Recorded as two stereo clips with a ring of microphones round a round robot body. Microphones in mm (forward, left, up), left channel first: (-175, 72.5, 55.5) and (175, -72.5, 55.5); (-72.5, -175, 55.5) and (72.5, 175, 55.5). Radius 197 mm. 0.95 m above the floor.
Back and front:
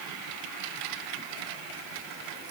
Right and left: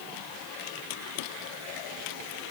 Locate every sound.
Only background noise.